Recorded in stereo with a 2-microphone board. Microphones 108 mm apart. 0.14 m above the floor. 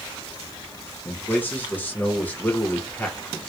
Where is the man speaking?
20° left (ahead or behind), 1.2 m.